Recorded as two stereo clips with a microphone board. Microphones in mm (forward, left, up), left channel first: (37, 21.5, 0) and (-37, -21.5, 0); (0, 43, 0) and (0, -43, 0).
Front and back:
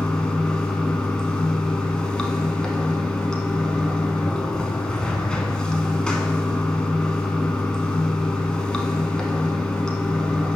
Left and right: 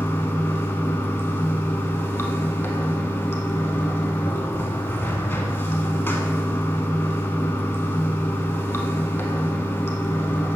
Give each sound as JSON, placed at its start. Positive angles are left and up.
{"t": 0.0, "sound": "running water", "azimuth_deg": 100, "distance_m": 0.7}